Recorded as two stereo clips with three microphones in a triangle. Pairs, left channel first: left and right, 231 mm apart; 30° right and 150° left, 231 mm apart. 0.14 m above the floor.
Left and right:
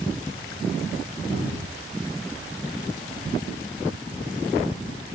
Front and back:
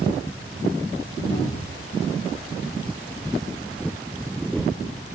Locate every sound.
1.3 s a cupboard door: 20° left, 3.5 m